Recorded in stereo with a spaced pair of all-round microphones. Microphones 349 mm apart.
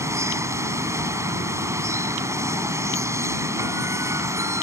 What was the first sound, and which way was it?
Running water, 10° right (ahead or behind).